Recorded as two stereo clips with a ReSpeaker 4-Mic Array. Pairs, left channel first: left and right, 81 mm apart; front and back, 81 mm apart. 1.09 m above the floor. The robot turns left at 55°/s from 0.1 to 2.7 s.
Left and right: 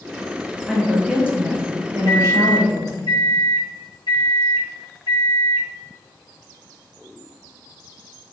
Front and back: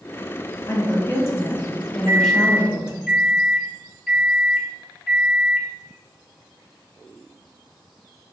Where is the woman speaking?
5° left, 0.5 m; by 3.1 s 105° right, 0.5 m.